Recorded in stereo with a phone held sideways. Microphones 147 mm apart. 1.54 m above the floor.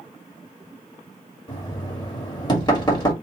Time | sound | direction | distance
1.5 | knocking | 30° left (ahead or behind) | 2 m